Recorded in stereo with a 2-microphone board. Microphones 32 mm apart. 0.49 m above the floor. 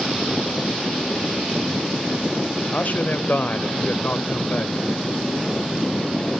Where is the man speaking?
65° left (ahead or behind), 1.5 m.